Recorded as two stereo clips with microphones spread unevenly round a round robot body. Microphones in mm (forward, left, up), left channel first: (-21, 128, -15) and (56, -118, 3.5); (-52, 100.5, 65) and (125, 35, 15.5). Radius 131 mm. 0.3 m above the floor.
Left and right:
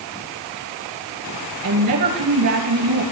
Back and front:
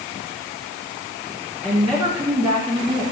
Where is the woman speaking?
95° right, 4.5 m.